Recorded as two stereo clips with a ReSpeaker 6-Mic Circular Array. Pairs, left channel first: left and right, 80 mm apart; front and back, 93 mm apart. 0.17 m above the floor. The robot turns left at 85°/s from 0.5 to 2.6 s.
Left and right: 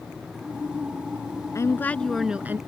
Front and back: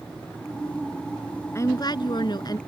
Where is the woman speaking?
55° left; by 2.6 s 35° right.